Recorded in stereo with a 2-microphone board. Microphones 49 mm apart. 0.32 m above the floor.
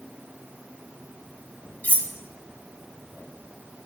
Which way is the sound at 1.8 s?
35° left (ahead or behind).